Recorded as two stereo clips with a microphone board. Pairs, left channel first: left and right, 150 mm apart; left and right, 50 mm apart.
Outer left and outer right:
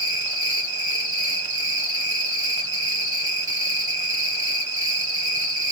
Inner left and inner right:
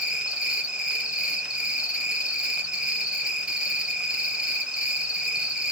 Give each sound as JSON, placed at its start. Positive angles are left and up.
{"t": 0.0, "sound": "an insect", "side_deg": -25, "distance_m": 1.0}